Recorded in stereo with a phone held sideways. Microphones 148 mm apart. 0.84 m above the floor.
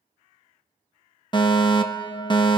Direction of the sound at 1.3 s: 30° left (ahead or behind).